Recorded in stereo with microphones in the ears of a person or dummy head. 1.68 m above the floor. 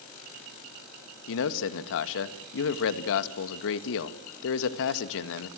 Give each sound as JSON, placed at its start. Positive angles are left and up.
{"t": 1.3, "sound": "a man speaking", "side_deg": 70, "distance_m": 1.8}